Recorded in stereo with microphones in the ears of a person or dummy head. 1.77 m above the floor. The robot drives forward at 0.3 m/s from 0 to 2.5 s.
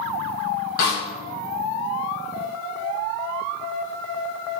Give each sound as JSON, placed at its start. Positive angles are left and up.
{"t": 0.8, "sound": "a snare drum", "side_deg": 50, "distance_m": 1.0}